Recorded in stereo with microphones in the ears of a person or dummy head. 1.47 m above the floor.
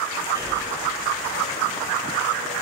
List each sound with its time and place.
0.3 s breathing: 15° right (ahead or behind), 1.5 m